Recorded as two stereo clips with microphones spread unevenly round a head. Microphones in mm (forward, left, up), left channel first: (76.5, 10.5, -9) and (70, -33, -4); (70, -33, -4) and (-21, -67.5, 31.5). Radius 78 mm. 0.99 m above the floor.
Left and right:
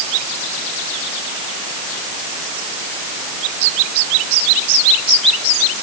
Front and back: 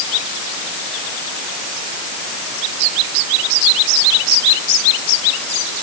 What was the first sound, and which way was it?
Only background noise.